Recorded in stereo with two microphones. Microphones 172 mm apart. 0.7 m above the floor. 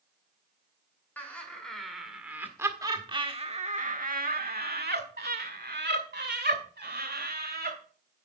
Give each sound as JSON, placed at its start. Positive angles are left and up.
{"t": 1.2, "sound": "laughter", "side_deg": 10, "distance_m": 2.0}